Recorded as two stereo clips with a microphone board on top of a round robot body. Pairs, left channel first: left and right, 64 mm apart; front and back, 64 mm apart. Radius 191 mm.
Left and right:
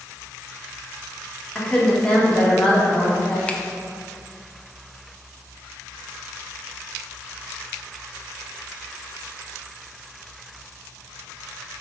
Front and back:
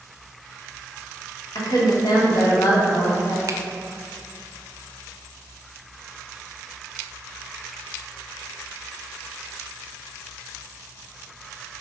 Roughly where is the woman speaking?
Ahead.